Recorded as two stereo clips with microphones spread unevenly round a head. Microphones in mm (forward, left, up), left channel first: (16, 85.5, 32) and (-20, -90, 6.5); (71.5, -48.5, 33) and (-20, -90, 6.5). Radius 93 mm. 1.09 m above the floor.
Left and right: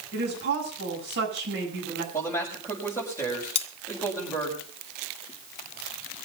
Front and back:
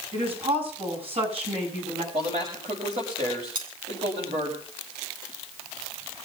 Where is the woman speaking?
135° right, 7.5 m.